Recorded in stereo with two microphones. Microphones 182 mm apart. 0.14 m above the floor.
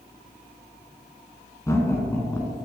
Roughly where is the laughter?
Centre.